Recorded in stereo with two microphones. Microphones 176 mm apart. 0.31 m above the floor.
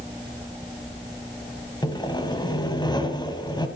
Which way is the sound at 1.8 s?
20° left (ahead or behind).